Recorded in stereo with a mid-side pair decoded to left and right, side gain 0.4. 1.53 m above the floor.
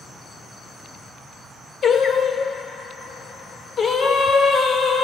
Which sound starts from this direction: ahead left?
Singing, at 1.8 s.